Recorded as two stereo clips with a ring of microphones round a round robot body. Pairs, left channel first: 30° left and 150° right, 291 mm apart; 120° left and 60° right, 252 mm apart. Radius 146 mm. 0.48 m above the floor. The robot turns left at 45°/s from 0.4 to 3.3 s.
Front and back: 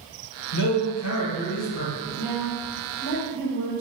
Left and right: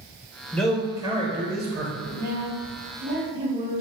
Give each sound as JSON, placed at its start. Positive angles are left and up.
{"t": 0.5, "sound": "a man speaking", "azimuth_deg": 35, "distance_m": 1.6}
{"t": 2.0, "sound": "a woman speaking", "azimuth_deg": -75, "distance_m": 1.9}